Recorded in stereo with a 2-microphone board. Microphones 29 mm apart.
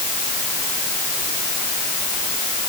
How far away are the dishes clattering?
No dishes clattering in this recording.